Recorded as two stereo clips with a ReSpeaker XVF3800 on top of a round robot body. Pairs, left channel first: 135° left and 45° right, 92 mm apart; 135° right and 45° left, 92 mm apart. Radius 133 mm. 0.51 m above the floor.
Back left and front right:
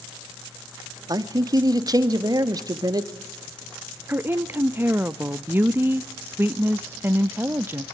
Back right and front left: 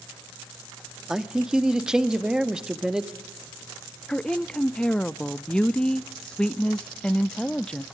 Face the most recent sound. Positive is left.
turn(degrees=-65)